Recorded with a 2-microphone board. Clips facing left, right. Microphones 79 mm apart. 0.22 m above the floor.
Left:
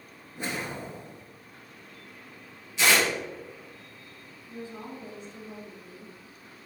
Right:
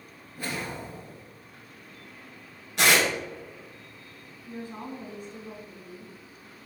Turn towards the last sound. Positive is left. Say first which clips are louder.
# right 2 dB
turn(degrees=-55)  # may be behind; listen again after turning